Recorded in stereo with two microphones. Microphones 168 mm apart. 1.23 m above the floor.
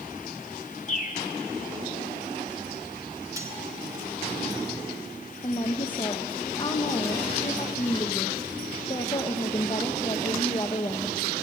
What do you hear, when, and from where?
0.9 s a bird: 45° left (ahead or behind), 1.6 m
3.4 s cutlery clinking: 20° right (ahead or behind), 2.0 m
5.4 s a woman speaking: 30° left (ahead or behind), 0.9 m